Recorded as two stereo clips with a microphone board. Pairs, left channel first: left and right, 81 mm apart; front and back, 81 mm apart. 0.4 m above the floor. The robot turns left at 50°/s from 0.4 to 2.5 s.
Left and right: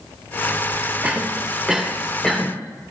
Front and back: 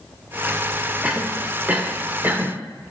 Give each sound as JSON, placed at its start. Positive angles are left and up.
{"t": 1.0, "sound": "a cough", "azimuth_deg": -130, "distance_m": 1.0}